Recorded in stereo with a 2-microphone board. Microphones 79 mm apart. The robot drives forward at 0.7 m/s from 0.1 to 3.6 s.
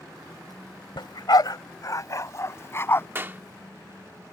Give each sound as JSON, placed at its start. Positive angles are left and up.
{"t": 1.0, "sound": "a dog barking", "side_deg": 75}
{"t": 3.1, "sound": "a clap", "side_deg": -30}